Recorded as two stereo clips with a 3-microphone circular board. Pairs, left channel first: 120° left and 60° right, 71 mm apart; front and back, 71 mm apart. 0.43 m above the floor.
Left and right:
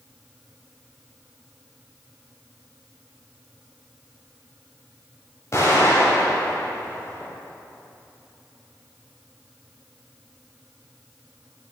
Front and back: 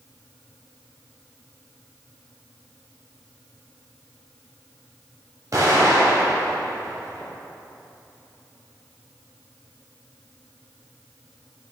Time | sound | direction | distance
5.5 | an explosion | 160° left | 2 m